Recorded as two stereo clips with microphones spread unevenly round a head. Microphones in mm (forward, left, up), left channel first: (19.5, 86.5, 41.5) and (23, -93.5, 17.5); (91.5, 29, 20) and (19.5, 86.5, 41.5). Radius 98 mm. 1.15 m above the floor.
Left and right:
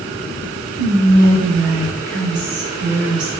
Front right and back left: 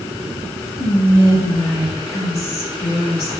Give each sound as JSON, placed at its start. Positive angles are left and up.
{"t": 0.8, "sound": "whispering", "azimuth_deg": -65, "distance_m": 1.1}